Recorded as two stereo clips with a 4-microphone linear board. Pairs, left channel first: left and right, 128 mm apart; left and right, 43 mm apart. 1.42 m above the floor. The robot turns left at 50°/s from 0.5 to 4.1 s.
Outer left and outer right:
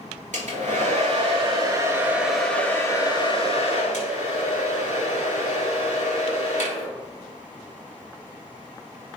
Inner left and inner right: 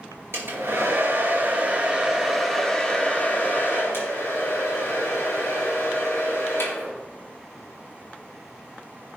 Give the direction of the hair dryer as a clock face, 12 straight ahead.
3 o'clock.